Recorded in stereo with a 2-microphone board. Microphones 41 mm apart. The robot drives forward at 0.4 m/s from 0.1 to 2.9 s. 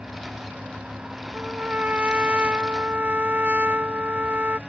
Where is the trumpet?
30° right (ahead or behind); by 4.6 s 35° right (ahead or behind).